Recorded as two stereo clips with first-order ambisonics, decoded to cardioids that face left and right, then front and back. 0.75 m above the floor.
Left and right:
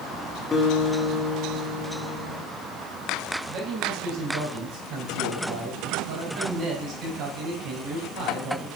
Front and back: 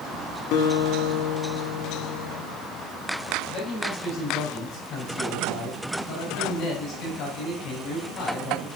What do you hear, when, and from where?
0.5 s a guitar: 20° left, 1.5 m
3.5 s a man speaking: 45° right, 4 m